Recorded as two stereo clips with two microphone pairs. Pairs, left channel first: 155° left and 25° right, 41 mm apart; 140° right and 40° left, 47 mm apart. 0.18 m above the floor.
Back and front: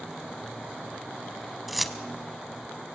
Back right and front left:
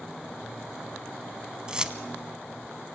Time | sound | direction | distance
1.7 | keys jangling | 60° left | 0.8 m